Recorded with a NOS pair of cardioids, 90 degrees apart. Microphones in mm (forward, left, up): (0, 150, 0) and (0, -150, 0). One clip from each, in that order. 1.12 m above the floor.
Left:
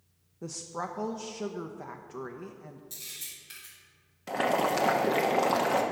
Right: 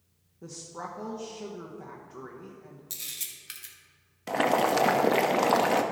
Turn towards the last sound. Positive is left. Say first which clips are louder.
# right 3 dB
turn(degrees=-20)